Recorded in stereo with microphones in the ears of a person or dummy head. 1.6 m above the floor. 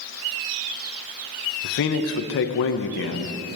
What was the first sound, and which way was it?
A man speaking, 60° left (ahead or behind).